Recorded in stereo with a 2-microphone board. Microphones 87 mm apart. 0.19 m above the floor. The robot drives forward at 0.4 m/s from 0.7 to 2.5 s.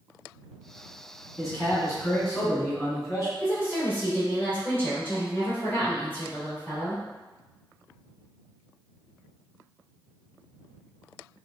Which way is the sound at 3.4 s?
25° left (ahead or behind).